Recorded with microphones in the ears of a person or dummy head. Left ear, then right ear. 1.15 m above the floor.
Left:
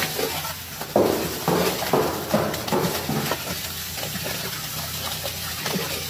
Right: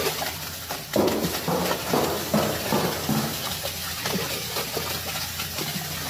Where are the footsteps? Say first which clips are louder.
Left 3 dB; 60° left (ahead or behind), 2.5 m; by 3.4 s 40° right (ahead or behind), 2 m.